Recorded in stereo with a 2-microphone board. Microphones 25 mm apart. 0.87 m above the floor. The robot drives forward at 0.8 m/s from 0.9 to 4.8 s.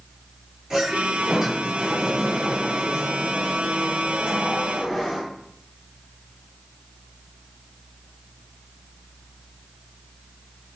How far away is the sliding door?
About 9 m.